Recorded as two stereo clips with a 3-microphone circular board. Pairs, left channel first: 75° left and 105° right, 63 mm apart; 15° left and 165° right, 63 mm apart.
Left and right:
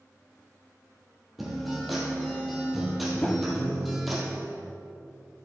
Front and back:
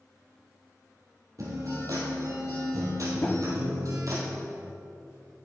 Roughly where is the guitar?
Behind.